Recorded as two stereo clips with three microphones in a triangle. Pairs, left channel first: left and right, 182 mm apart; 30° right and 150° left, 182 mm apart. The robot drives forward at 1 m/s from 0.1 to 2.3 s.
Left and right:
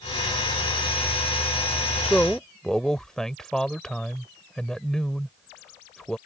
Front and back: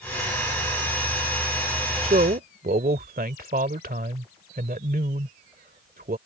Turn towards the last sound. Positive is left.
turn(degrees=175)